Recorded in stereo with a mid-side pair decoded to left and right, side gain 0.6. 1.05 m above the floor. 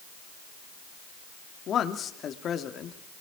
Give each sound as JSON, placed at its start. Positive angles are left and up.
{"t": 1.7, "sound": "a man speaking", "azimuth_deg": 45, "distance_m": 2.5}